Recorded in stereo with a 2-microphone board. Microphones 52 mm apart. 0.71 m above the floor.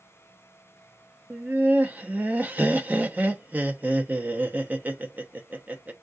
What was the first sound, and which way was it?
Laughter, 35° right (ahead or behind).